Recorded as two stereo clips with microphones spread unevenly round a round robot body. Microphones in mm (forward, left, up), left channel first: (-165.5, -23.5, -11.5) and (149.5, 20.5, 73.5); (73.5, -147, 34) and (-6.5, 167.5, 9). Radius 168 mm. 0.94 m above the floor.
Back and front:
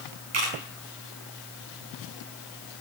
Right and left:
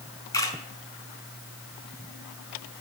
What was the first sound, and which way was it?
A camera shutter, 5° left.